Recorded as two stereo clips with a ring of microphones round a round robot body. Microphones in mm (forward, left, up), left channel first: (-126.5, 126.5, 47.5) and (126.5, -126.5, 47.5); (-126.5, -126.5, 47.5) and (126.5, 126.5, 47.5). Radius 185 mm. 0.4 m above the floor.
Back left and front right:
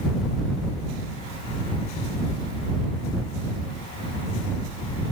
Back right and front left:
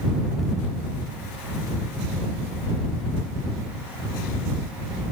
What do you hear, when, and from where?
Only background noise.